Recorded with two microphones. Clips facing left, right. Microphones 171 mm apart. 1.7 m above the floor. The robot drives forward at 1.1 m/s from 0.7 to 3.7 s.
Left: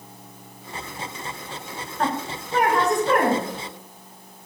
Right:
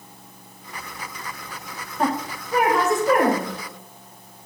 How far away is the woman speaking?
About 1.9 m.